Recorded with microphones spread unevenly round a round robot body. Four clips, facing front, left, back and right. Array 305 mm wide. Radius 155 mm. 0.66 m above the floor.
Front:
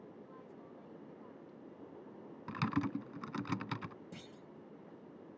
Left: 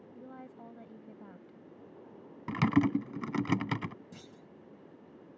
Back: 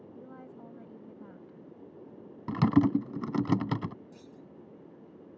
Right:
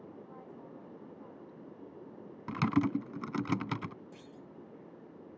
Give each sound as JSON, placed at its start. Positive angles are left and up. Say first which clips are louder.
{"t": 0.1, "sound": "a woman speaking", "louder": "left 1 dB, back 6 dB", "azimuth_deg": 130}
{"t": 2.5, "sound": "typing on a keyboard", "louder": "left 3 dB, back 12 dB", "azimuth_deg": 165}
{"t": 4.1, "sound": "a clunk", "louder": "right 1 dB, back 2 dB", "azimuth_deg": 35}